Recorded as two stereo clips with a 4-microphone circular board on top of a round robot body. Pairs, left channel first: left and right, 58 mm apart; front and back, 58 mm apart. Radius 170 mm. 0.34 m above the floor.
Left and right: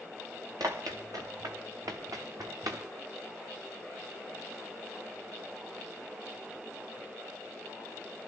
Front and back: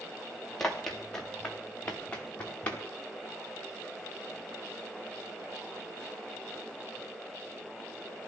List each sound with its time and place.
0.6 s running footsteps: 85° right, 3.5 m; by 2.8 s 70° right, 4.5 m